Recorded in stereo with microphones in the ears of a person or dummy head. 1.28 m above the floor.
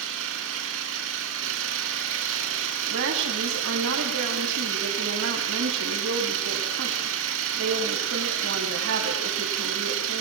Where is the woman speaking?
70° right (ahead or behind), 9 m.